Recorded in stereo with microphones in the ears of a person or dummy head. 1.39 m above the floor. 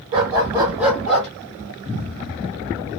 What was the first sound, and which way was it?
A dog barking, 25° right (ahead or behind).